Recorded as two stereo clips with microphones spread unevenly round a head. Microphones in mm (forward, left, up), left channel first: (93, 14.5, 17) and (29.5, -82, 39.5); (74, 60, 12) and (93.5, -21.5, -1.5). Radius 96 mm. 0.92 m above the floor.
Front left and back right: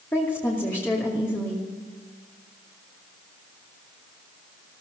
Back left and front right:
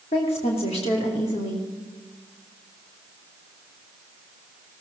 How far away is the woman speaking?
About 2.5 m.